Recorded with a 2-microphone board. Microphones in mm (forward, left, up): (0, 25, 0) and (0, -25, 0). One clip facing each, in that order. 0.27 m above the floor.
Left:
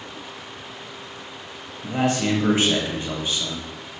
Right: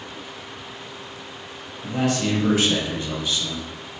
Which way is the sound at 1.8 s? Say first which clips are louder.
Left 1 dB; 30° left (ahead or behind).